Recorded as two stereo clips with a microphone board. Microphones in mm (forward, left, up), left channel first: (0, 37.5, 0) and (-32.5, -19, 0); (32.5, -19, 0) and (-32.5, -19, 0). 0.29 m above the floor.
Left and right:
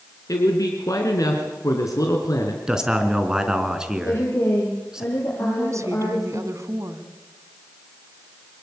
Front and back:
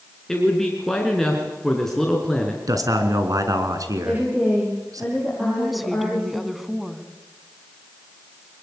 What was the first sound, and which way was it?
A man speaking, 80° left.